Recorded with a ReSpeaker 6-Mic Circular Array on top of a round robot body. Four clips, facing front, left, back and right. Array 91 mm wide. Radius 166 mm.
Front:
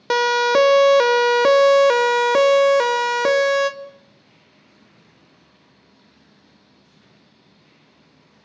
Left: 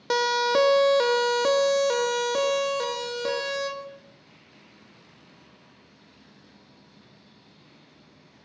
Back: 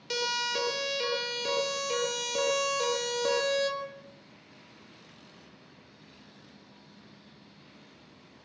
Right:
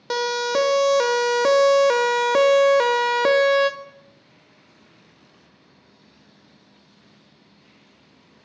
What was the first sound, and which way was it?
A siren, straight ahead.